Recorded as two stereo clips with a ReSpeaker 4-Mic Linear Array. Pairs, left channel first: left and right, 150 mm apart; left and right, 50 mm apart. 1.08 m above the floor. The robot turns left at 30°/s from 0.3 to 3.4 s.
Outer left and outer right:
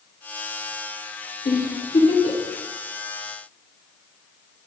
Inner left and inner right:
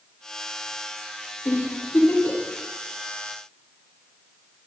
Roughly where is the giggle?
Left.